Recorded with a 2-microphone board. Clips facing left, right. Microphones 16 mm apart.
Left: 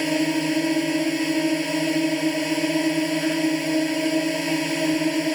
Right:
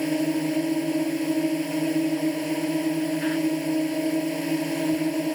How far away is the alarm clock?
I don't hear an alarm clock.